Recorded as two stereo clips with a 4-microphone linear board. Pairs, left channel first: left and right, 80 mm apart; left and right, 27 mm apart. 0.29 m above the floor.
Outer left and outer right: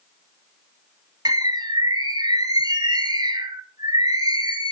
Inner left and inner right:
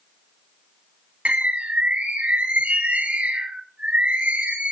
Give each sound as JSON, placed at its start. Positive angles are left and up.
{"t": 1.2, "sound": "a bird", "side_deg": -55, "distance_m": 2.5}